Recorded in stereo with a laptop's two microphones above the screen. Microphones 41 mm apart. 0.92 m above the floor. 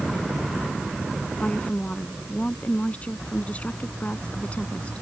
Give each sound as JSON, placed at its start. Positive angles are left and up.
{"t": 1.4, "sound": "a woman speaking", "side_deg": 30}